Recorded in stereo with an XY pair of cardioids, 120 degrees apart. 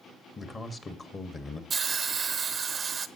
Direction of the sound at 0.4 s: 30° left.